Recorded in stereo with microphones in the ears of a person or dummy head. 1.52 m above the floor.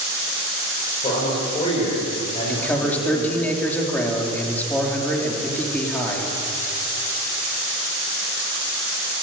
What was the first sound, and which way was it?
A man speaking, 35° left (ahead or behind).